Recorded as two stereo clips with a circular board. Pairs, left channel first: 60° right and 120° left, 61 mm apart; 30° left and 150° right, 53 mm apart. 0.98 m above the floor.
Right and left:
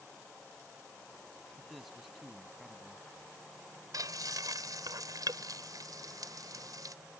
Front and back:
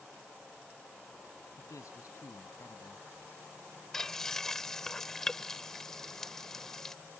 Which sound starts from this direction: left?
Frying, at 3.9 s.